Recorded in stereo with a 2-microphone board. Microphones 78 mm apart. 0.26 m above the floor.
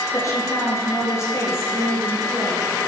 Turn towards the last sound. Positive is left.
turn(degrees=30)  # may be behind; listen again after turning